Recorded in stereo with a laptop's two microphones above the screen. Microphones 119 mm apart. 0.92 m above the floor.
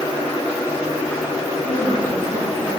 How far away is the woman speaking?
About 7.5 m.